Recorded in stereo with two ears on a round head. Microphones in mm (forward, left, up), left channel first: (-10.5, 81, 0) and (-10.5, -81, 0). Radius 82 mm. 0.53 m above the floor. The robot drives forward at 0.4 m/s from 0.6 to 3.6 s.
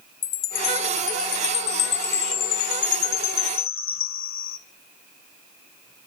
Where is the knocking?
I don't hear knocking.